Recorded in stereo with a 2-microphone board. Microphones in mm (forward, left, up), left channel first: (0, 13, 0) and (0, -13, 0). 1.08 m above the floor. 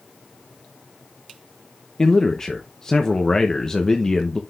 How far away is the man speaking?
About 0.8 m.